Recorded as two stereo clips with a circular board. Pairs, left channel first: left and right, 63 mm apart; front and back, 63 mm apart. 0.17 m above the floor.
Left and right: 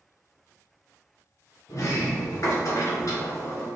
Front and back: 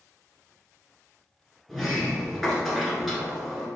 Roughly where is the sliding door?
Left.